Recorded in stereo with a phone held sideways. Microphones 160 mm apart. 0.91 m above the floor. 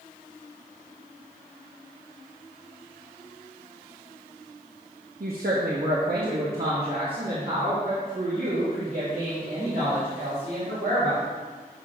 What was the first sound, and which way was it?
A woman speaking, 65° right (ahead or behind).